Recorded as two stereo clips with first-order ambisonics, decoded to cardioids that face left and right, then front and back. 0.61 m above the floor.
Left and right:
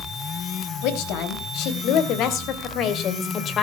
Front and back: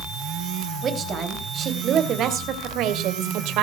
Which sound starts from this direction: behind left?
A woman speaking, at 0.8 s.